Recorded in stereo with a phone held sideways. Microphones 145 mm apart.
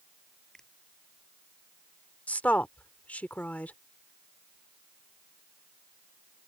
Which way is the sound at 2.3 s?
10° left (ahead or behind).